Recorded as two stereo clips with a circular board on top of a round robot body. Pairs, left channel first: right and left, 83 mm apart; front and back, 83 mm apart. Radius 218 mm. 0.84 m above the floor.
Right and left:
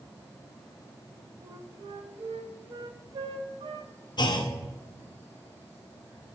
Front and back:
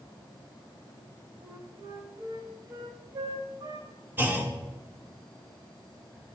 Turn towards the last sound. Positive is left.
turn(degrees=-115)